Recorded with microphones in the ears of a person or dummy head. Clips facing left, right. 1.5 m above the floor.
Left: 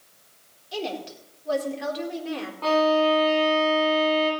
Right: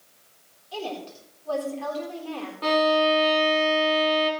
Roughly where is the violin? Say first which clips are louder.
Left 1 dB; centre.